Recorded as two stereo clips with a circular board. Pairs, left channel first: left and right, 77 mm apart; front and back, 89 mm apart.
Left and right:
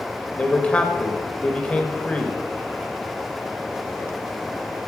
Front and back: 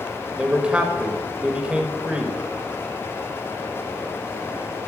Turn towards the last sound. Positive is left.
turn(degrees=130)